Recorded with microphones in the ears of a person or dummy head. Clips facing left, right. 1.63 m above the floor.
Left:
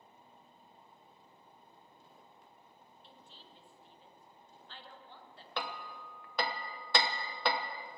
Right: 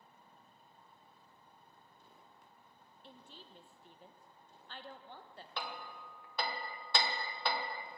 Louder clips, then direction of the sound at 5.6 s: Left 4 dB; 60° left (ahead or behind).